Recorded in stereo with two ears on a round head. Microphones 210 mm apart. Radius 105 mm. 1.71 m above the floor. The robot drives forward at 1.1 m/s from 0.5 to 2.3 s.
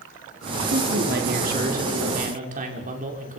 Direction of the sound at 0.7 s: 50° right (ahead or behind).